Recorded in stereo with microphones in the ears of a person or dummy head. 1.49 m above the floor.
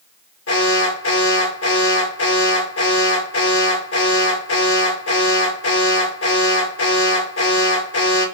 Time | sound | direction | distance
0.5 | an alarm | 75° left (ahead or behind) | 7.5 m